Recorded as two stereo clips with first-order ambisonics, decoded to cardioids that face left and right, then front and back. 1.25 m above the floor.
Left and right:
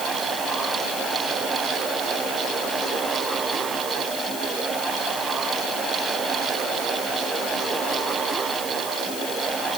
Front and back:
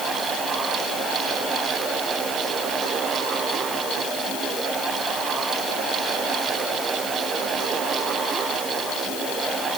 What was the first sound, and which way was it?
Only background noise.